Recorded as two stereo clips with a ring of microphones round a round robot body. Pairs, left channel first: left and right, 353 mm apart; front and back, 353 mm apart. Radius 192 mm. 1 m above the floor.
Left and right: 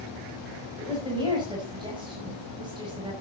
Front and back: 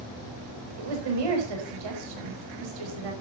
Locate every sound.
0.8 s a woman speaking: 170° right, 5 m